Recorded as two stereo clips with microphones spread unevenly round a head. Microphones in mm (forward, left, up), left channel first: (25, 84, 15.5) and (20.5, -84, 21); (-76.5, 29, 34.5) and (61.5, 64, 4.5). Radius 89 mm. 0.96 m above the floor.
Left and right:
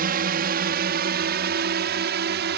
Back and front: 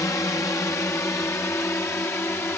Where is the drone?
90° right; by 2.6 s 85° right.